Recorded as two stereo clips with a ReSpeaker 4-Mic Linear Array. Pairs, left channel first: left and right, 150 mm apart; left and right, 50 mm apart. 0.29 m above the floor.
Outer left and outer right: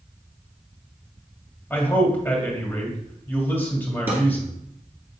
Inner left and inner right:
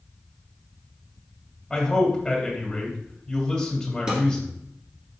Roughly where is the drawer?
Centre.